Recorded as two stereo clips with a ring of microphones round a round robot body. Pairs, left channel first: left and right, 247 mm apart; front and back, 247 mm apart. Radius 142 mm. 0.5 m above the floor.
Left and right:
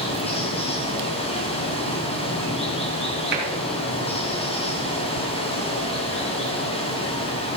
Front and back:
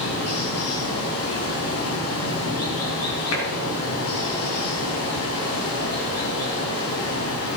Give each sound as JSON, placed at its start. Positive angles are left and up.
{"t": 0.0, "sound": "running water", "azimuth_deg": 25, "distance_m": 4.0}
{"t": 3.3, "sound": "tapping", "azimuth_deg": -40, "distance_m": 3.0}
{"t": 5.2, "sound": "ticking", "azimuth_deg": -85, "distance_m": 1.0}